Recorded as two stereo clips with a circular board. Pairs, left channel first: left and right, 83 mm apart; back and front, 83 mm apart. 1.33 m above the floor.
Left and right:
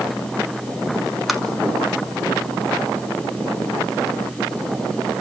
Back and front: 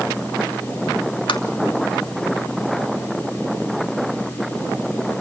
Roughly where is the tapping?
Behind.